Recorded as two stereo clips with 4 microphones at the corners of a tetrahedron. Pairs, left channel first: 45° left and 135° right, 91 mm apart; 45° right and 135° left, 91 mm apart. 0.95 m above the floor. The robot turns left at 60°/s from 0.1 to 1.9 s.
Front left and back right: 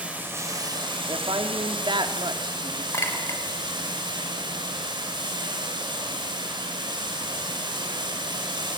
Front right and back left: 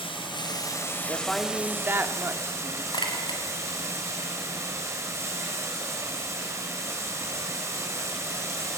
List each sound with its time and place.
0.0 s running water: 60° right, 4 m; by 8.8 s 165° right, 4 m
1.1 s a woman speaking: 110° right, 2.0 m; by 2.8 s 160° right, 2.0 m
2.9 s a clink: 15° right, 3 m